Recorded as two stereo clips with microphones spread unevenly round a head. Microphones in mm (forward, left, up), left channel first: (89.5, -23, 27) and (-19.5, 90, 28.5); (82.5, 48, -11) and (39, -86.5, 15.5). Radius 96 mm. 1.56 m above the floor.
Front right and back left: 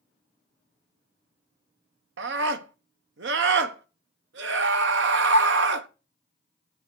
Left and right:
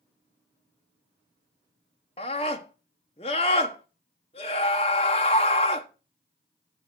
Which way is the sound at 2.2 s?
140° left.